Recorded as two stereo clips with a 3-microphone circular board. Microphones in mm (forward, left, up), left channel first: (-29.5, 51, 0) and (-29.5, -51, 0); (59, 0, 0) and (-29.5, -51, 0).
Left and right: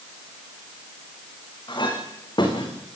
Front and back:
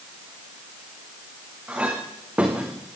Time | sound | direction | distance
1.7 | a clink | 130° left | 5 m